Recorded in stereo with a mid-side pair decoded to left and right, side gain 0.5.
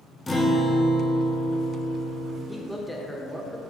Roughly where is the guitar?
Ahead.